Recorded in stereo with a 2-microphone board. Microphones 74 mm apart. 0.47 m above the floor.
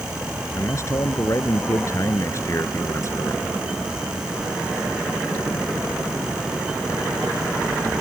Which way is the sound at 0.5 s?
40° left (ahead or behind).